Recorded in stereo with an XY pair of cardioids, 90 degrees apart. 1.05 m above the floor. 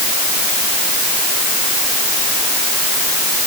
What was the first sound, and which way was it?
Only background noise.